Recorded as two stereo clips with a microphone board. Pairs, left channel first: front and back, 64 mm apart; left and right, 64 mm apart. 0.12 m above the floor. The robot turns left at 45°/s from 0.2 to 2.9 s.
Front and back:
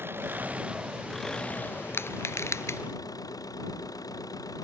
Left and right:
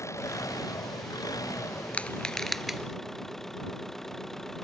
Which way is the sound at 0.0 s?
130° left.